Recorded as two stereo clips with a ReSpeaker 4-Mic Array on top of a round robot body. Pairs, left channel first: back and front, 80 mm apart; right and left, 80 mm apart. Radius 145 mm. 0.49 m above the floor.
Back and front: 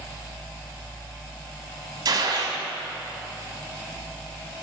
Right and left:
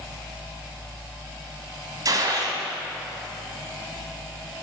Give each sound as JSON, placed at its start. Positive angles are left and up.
{"t": 2.0, "sound": "a gunshot", "azimuth_deg": 40, "distance_m": 1.0}